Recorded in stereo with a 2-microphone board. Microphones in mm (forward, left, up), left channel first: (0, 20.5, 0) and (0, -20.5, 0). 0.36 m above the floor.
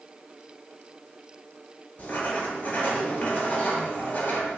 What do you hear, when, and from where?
2.0 s writing: 45° left (ahead or behind), 1.2 m